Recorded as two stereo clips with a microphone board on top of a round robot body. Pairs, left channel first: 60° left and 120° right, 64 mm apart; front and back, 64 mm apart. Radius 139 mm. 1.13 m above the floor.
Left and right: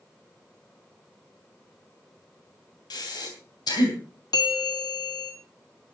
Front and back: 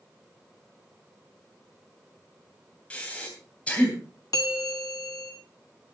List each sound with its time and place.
2.9 s breathing: 75° left, 3 m
4.3 s a bell: 45° left, 0.7 m